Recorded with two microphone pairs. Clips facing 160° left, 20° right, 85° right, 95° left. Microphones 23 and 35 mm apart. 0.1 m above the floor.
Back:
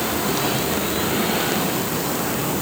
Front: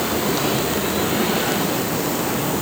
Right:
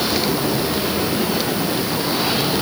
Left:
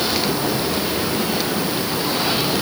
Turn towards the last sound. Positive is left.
No sound to turn to.